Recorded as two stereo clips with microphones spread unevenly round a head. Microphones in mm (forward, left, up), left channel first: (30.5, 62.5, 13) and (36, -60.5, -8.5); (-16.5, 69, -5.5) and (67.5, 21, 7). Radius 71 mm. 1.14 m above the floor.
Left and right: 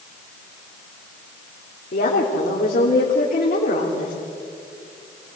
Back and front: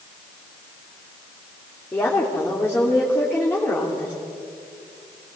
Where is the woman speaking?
80° left, 3 m.